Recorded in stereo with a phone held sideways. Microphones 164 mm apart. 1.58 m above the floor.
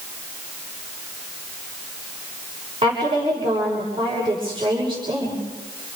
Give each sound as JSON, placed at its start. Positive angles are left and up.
{"t": 2.8, "sound": "a woman speaking", "side_deg": -30, "distance_m": 6.5}